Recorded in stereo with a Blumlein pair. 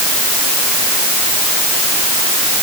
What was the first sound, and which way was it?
Only background noise.